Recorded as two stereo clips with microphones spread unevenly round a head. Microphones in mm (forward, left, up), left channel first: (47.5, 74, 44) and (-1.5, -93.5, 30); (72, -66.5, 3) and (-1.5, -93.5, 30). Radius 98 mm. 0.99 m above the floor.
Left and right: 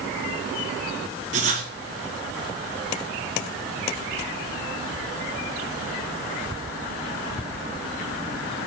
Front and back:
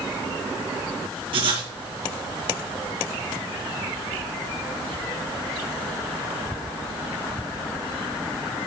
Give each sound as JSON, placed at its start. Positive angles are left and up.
{"t": 1.3, "sound": "writing", "azimuth_deg": -165, "distance_m": 4.5}